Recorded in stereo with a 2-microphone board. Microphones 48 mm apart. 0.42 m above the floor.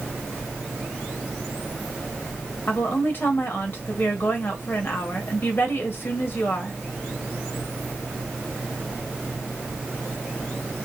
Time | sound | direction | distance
2.7 | a woman speaking | 50° left (ahead or behind) | 1.4 m